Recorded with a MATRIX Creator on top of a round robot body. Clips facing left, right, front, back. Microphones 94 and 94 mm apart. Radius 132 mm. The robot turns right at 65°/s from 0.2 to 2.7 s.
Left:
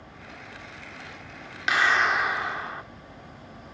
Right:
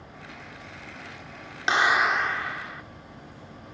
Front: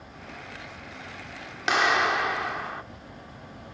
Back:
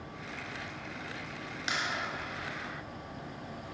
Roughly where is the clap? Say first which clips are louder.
Right 1 dB, front 13 dB; ahead right.